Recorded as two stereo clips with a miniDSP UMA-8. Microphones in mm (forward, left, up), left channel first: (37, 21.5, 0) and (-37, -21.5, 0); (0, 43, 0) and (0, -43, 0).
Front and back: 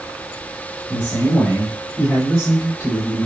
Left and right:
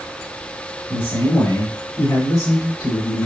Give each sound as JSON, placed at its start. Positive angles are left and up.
{"t": 0.9, "sound": "a man speaking", "azimuth_deg": 75, "distance_m": 1.8}